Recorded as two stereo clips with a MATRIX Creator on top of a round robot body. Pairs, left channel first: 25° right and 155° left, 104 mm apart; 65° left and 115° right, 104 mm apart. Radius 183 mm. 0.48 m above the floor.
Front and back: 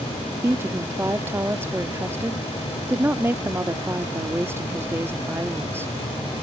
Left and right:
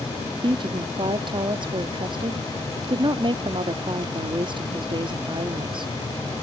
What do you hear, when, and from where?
0.4 s a woman speaking: 140° right